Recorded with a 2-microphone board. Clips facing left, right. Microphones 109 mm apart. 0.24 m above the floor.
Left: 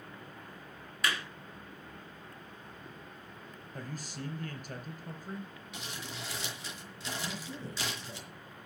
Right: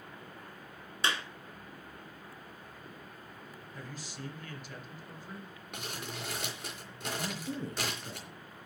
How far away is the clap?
About 1.9 m.